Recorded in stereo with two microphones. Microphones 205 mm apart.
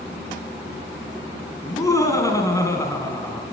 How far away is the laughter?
About 1.6 m.